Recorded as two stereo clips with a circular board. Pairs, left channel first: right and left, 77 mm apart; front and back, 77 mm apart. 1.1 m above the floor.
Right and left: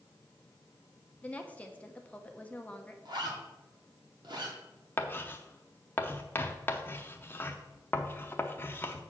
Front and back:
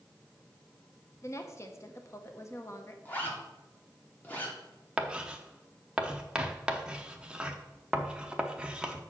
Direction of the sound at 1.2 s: 25° right.